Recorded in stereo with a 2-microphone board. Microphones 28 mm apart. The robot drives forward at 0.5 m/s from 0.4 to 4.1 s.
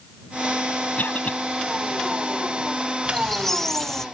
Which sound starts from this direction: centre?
A squeak, at 3.0 s.